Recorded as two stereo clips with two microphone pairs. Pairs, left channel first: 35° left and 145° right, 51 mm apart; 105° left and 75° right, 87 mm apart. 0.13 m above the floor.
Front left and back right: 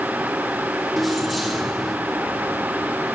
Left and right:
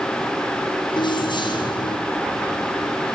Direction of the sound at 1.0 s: 125° left.